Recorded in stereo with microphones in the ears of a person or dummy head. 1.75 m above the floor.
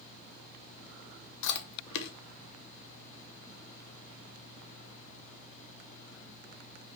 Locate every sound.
1.4 s chewing: 70° left (ahead or behind), 0.6 m